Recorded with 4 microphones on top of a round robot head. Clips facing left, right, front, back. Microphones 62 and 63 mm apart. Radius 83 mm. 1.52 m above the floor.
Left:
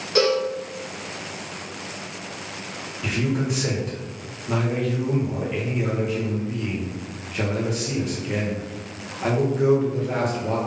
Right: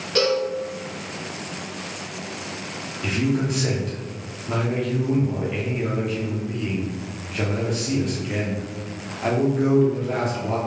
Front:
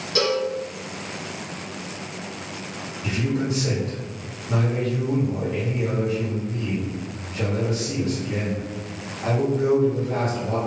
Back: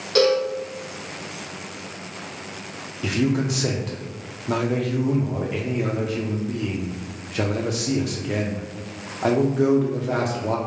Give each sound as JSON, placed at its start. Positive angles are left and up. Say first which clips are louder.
{"t": 0.1, "sound": "a cowbell", "louder": "left 1 dB, back 5 dB", "azimuth_deg": 170, "distance_m": 0.6}
{"t": 3.0, "sound": "a man speaking", "louder": "right 2 dB, back 3 dB", "azimuth_deg": 175, "distance_m": 0.8}